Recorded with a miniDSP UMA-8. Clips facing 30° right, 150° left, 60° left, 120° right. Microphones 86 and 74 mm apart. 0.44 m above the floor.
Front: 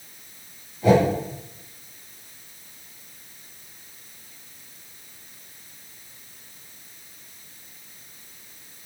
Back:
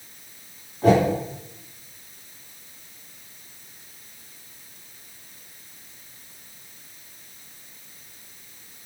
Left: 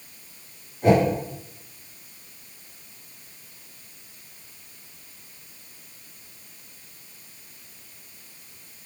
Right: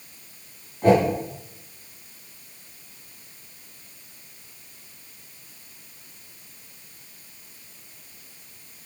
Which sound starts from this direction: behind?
A whoosh, at 0.8 s.